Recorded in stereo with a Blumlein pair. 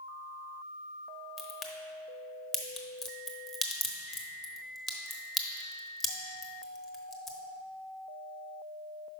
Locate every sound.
1.4 s a crack: 10° left, 1.0 m